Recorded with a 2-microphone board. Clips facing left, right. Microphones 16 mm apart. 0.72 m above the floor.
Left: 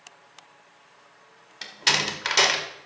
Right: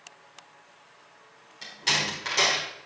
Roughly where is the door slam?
Left.